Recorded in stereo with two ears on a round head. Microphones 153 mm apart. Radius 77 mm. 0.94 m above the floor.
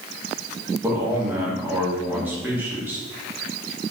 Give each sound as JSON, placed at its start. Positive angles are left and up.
{"t": 0.8, "sound": "a man speaking", "side_deg": -10, "distance_m": 1.1}